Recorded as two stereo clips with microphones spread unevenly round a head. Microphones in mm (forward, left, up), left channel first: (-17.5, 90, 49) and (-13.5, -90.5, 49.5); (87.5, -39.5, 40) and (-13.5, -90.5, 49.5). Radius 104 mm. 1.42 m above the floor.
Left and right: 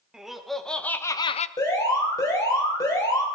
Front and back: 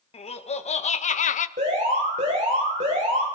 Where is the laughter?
Straight ahead, 2.0 m; by 1.5 s 40° left, 0.7 m.